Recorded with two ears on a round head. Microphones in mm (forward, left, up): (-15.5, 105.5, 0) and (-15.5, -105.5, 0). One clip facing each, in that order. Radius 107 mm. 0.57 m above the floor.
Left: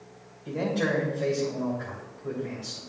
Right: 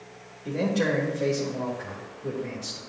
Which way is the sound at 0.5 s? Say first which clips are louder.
Right 2 dB; 60° right (ahead or behind).